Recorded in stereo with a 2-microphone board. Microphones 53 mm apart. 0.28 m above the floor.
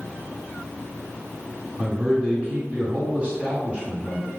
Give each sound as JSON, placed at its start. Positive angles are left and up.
{"t": 1.8, "sound": "a man speaking", "side_deg": -20, "distance_m": 2.0}